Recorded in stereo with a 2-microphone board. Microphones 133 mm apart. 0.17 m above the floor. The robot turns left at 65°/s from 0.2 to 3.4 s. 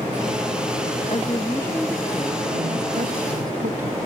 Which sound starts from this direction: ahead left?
A woman speaking, at 1.1 s.